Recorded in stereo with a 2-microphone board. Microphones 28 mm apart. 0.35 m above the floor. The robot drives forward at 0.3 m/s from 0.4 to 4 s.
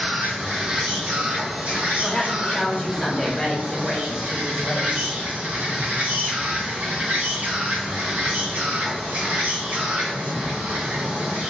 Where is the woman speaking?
25° left (ahead or behind), 0.8 m; by 5.0 s 20° left (ahead or behind), 1.0 m.